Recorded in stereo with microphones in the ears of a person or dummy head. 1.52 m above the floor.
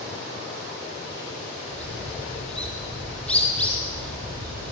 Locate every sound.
1.7 s a bird: 10° left (ahead or behind), 8 m